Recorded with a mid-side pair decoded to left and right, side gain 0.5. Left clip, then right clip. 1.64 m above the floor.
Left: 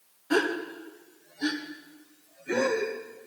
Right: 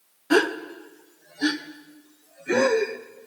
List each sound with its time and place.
0.3 s a gasp: 35° right, 0.7 m